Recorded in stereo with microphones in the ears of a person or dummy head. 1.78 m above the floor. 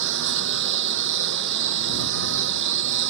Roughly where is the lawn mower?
Right.